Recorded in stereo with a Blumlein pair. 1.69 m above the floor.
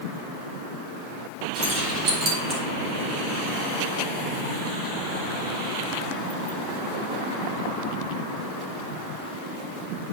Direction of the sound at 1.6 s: 30° right.